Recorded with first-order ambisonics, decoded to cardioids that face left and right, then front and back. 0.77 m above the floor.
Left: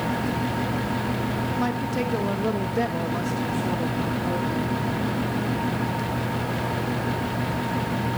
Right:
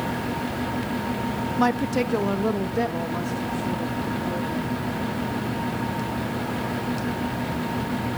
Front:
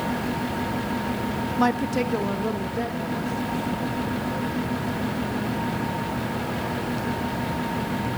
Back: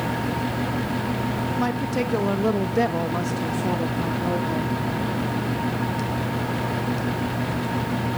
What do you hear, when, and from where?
1.6 s a woman speaking: 50° right, 0.6 m; by 4.8 s 165° left, 1.5 m